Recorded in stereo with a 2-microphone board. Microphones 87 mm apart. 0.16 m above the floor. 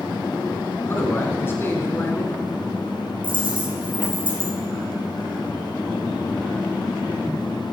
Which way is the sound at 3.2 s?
70° right (ahead or behind).